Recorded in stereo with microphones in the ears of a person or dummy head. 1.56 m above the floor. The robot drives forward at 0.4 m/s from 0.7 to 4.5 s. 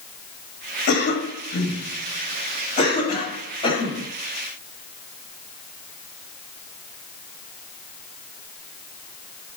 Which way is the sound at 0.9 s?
55° left (ahead or behind).